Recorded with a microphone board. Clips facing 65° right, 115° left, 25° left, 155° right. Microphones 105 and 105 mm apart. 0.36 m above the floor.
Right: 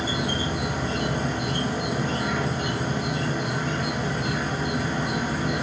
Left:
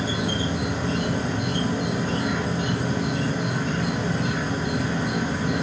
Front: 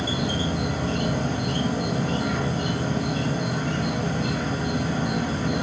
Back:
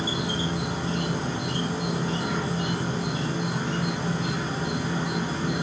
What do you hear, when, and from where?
0.0 s an insect: 20° left, 1.6 m